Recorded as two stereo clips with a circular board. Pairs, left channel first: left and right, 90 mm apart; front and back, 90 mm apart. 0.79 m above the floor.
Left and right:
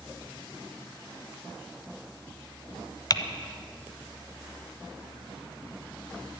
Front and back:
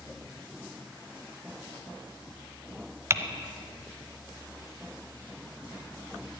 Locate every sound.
3.1 s typing on a keyboard: 125° left, 0.9 m